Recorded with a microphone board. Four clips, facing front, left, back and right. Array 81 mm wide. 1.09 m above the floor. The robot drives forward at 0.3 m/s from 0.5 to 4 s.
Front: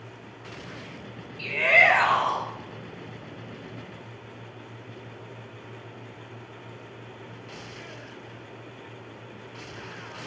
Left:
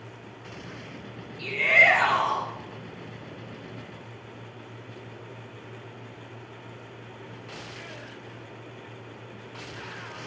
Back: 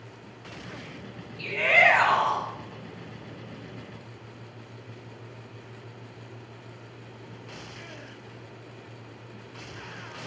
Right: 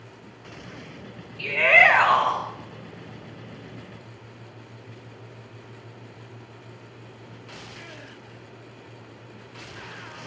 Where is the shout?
105° right, 7 m.